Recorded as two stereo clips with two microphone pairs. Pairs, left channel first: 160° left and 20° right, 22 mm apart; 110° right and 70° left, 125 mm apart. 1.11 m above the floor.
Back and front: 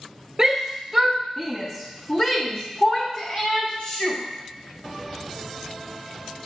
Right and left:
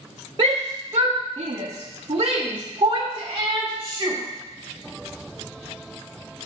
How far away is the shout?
About 0.9 m.